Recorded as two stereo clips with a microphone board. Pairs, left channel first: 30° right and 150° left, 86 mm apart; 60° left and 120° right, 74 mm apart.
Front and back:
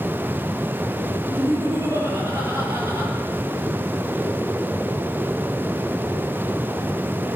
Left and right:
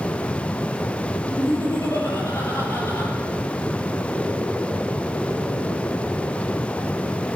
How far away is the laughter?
About 3.5 m.